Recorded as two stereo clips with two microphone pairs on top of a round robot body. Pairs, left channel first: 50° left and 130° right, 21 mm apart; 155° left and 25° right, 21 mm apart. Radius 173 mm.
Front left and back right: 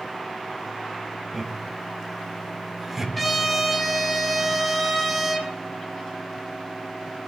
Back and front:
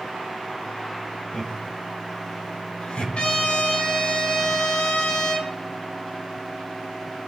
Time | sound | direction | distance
1.3 | laughter | 140° left | 4 m
3.1 | a trumpet | 140° left | 4 m